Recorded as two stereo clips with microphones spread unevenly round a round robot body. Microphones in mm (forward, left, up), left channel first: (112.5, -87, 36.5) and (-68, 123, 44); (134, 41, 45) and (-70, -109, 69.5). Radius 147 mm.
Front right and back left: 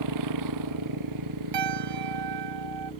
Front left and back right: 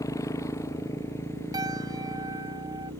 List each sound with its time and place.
0.0 s a motorcycle: 115° left; by 3.0 s 120° left
1.5 s a piano: 140° left